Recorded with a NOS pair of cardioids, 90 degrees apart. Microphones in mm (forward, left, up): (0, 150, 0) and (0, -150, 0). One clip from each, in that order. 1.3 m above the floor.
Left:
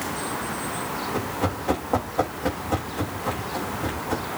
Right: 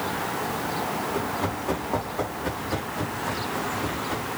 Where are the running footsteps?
35° left, 6.5 m.